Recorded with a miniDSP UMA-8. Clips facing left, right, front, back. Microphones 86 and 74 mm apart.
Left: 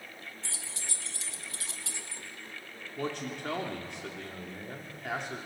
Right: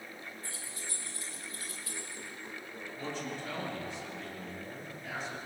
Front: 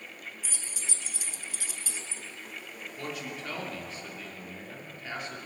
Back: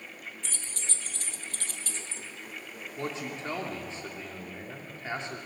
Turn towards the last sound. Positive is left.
turn(degrees=120)